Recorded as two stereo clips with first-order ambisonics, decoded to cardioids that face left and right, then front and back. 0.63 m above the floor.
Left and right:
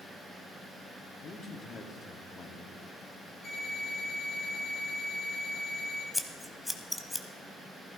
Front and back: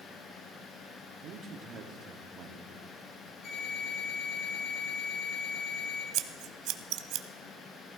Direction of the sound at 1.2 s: 145° left.